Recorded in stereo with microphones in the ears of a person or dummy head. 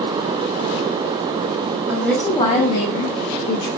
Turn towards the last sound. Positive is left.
turn(degrees=75)  # may be behind; listen again after turning